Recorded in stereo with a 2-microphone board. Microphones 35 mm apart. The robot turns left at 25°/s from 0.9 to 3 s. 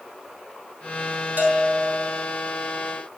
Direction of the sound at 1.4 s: 60° right (ahead or behind).